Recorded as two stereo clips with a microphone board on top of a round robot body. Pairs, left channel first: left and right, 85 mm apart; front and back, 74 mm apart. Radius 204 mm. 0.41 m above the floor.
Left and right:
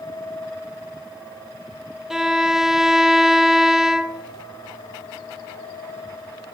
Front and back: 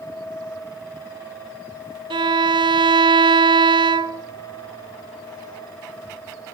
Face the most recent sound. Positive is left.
turn(degrees=-175)